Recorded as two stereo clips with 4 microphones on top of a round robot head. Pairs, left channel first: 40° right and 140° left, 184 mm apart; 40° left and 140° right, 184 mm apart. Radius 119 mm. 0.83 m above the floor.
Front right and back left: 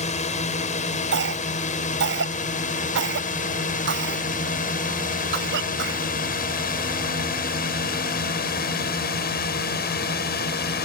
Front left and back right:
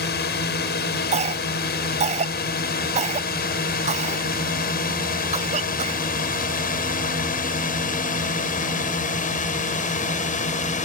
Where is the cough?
165° left.